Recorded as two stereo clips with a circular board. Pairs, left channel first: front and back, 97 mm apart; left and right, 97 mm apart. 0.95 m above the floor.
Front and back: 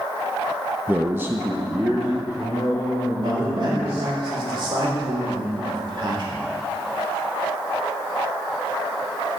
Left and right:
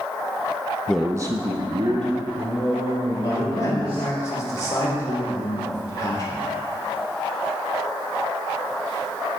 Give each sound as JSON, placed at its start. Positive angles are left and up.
{"t": 0.9, "sound": "a man speaking", "azimuth_deg": 150, "distance_m": 0.6}
{"t": 3.1, "sound": "a man speaking", "azimuth_deg": 145, "distance_m": 2.5}